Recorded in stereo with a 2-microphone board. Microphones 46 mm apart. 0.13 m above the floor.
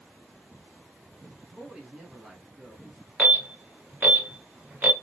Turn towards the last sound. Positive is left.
turn(degrees=-40)  # may be behind; listen again after turning